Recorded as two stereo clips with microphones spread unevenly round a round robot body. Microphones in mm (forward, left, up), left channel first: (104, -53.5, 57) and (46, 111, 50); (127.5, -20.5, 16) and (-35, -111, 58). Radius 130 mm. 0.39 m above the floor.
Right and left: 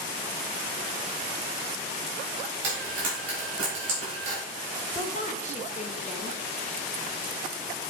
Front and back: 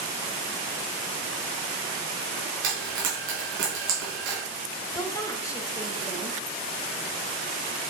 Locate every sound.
2.6 s frying: 175° left, 3 m
4.9 s a woman speaking: 30° right, 1.3 m